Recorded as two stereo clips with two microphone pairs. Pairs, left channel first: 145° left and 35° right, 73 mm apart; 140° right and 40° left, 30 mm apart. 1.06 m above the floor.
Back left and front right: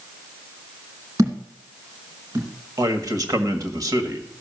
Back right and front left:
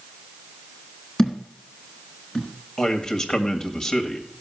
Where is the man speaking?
70° right, 1.7 m.